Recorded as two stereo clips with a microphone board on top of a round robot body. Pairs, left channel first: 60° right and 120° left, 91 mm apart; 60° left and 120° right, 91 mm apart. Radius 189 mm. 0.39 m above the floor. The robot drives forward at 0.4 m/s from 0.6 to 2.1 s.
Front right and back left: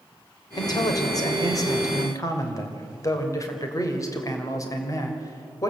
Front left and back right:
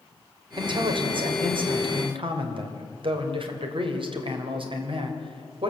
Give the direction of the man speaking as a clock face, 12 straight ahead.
3 o'clock.